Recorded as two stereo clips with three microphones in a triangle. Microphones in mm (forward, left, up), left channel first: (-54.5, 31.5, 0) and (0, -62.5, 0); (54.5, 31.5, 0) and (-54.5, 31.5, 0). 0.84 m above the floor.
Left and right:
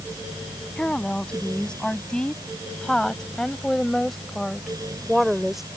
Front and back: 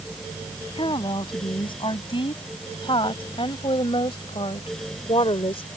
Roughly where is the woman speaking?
Ahead left.